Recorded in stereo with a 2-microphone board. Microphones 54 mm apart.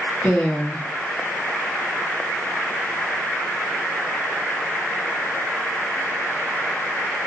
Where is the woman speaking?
20° left (ahead or behind), 1.1 m.